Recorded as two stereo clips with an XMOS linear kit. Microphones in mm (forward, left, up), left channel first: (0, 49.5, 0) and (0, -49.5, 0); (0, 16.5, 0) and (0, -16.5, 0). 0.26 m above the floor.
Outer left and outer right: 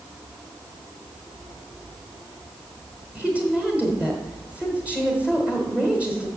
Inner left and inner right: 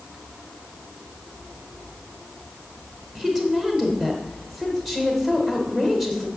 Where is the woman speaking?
15° right (ahead or behind), 1.3 m.